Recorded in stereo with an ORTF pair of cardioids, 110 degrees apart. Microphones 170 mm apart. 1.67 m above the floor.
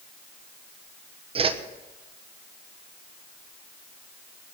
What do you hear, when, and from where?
1.4 s a whoosh: 35° right, 1.4 m